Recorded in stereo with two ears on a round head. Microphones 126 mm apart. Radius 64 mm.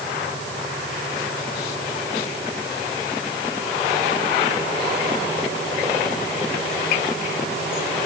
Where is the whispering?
I don't hear whispering.